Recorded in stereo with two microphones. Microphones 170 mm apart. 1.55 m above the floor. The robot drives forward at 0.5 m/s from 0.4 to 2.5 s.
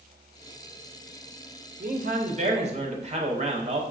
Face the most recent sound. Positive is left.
turn(degrees=-40)  # may be behind; listen again after turning